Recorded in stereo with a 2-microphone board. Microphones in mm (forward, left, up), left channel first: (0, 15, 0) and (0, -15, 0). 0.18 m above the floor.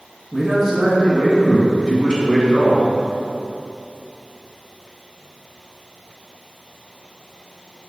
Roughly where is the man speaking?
Centre.